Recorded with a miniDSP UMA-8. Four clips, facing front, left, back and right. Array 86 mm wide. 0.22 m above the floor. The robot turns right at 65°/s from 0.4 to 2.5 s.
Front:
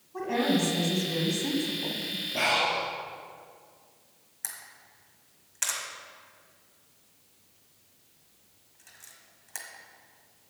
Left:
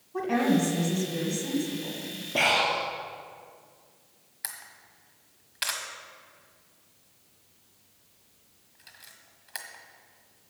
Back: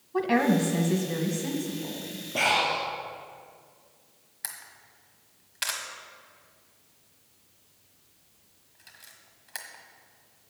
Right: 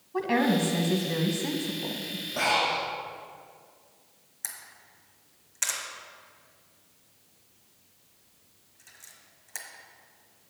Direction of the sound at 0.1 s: 145° right.